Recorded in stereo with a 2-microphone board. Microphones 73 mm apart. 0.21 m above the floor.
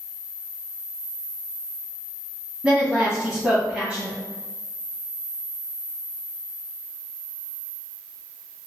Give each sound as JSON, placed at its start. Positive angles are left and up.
{"t": 2.6, "sound": "a woman speaking", "side_deg": -10, "distance_m": 1.3}